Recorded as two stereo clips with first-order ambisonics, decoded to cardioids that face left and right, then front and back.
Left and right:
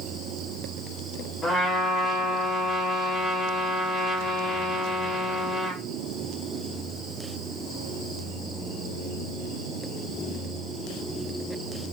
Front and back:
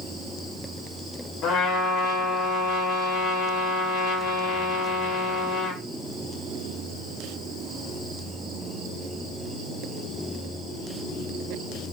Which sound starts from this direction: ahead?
A trumpet, at 1.4 s.